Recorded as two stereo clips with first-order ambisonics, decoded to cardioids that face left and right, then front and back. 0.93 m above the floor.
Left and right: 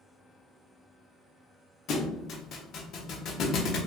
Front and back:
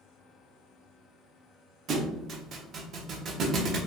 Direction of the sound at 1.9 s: 130° left.